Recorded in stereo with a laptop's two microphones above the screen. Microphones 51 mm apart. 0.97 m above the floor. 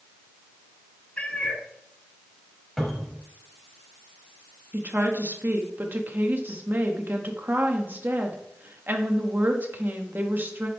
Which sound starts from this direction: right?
A woman speaking, at 4.7 s.